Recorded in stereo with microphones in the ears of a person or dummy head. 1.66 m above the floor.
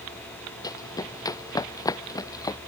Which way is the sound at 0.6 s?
15° left (ahead or behind).